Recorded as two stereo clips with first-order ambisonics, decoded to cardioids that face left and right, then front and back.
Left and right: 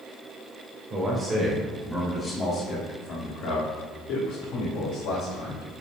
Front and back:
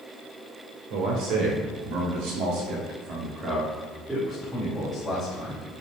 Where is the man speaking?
165° right, 3 m; by 5.7 s 80° left, 4.5 m.